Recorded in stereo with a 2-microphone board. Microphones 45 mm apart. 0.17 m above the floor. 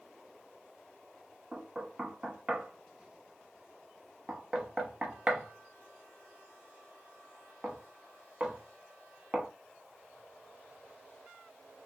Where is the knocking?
20° right (ahead or behind), 0.8 m.